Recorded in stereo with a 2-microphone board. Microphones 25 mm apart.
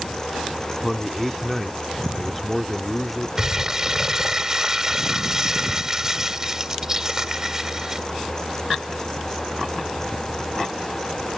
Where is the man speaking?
5° left (ahead or behind).